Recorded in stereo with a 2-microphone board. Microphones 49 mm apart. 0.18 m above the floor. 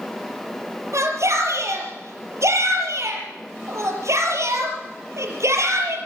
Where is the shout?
70° right (ahead or behind), 5.5 m.